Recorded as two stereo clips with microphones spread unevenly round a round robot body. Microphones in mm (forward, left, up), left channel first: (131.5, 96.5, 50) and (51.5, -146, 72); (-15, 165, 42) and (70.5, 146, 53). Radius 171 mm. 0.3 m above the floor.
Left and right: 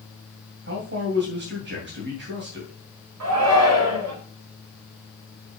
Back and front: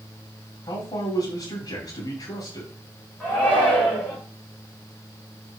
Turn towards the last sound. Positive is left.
turn(degrees=-105)